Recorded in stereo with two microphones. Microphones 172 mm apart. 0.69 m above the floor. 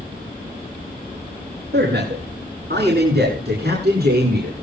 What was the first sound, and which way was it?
A man speaking, 80° right.